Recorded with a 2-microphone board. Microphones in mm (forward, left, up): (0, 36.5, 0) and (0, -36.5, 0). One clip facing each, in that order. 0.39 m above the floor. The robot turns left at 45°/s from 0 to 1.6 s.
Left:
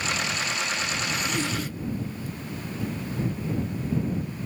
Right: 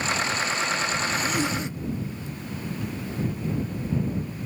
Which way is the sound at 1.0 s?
Centre (ahead or behind).